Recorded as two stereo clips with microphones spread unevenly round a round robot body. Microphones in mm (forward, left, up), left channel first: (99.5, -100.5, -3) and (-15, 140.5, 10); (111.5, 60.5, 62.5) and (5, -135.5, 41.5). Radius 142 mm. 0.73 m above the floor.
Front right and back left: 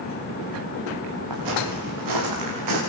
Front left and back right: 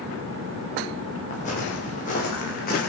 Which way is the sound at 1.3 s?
125° left.